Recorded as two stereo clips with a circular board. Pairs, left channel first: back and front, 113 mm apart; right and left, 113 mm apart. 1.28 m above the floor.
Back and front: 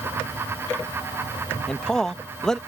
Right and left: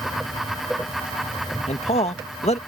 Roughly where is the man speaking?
Right.